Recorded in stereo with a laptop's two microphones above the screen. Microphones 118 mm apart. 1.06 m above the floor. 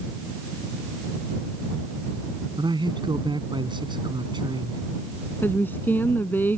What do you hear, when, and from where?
2.6 s a man speaking: 40° right (ahead or behind)
5.4 s a woman speaking: 15° left (ahead or behind)